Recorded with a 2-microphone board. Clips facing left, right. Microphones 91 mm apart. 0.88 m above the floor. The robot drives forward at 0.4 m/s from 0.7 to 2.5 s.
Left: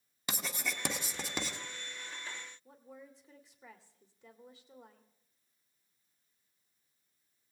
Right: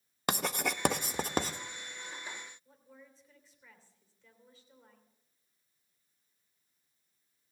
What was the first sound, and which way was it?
Writing, 55° right (ahead or behind).